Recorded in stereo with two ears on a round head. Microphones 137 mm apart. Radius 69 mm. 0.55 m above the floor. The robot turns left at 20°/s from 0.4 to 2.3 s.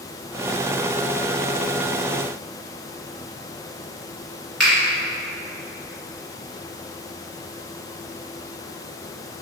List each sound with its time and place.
4.6 s a finger snap: 5° right (ahead or behind), 1.8 m